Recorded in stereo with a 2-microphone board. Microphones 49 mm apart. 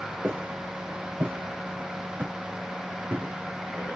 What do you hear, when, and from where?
0.2 s footsteps: 50° right (ahead or behind), 5 m